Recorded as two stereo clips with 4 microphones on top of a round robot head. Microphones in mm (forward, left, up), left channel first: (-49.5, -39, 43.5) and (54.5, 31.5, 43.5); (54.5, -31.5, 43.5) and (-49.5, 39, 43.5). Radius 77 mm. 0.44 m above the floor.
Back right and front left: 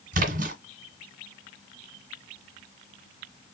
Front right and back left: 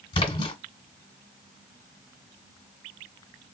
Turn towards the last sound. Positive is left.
turn(degrees=20)